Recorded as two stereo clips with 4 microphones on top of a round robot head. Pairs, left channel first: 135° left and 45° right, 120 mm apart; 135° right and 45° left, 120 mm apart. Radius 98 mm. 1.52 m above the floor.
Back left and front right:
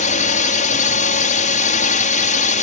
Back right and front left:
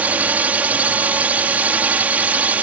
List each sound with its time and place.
0.0 s a drone: 120° left